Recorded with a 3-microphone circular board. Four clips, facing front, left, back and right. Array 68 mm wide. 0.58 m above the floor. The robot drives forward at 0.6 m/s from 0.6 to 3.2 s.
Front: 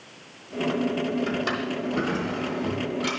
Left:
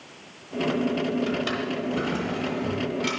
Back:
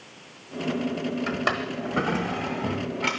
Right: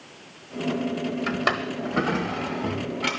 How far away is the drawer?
About 0.8 m.